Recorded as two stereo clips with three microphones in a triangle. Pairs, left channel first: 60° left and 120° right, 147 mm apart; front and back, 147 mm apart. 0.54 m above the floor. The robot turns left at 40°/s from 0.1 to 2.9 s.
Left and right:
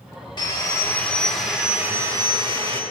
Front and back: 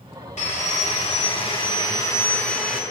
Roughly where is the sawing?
Ahead.